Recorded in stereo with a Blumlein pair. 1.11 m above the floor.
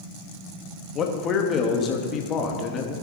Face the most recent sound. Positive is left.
turn(degrees=25)